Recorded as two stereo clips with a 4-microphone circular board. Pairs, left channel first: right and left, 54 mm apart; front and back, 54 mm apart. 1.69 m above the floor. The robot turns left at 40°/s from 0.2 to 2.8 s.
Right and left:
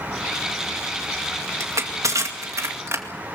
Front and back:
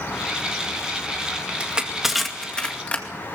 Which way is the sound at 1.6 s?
110° left.